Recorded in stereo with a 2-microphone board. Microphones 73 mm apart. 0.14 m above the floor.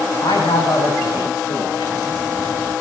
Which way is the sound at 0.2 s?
75° left (ahead or behind).